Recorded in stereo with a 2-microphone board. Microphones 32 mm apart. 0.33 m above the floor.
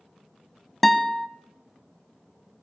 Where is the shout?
No shout in this recording.